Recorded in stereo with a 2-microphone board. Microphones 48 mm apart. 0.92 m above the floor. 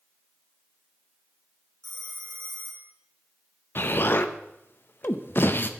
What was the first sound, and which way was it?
A phone ringing, 60° right (ahead or behind).